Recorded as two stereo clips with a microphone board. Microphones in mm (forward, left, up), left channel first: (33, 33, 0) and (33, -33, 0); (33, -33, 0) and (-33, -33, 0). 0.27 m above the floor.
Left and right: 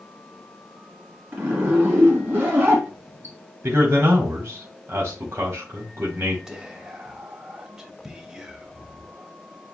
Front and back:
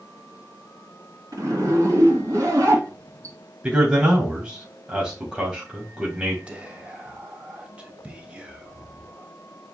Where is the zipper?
150° right, 2.0 m.